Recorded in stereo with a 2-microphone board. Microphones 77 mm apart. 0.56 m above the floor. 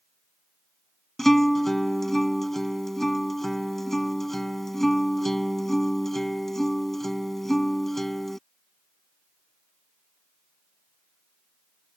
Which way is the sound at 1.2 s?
5° left (ahead or behind).